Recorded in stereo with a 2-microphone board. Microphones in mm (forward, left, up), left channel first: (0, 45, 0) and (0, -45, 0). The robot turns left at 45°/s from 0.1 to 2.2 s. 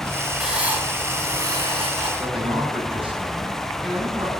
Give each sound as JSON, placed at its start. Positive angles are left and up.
{"t": 0.4, "sound": "writing", "azimuth_deg": -5, "distance_m": 3.5}
{"t": 2.2, "sound": "a man speaking", "side_deg": -80, "distance_m": 8.0}